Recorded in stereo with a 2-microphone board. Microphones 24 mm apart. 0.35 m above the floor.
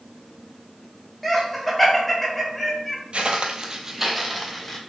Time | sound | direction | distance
1.2 | laughter | 5° left (ahead or behind) | 1.1 m
3.1 | footsteps | 60° right (ahead or behind) | 0.6 m